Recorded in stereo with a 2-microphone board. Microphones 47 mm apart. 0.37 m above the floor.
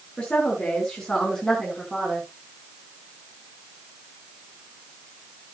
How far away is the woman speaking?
About 5 m.